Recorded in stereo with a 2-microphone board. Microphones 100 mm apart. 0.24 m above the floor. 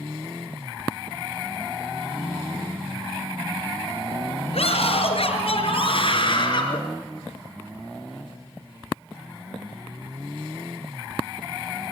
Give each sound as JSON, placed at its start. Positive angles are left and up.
{"t": 4.5, "sound": "a scream", "side_deg": 75, "distance_m": 4.0}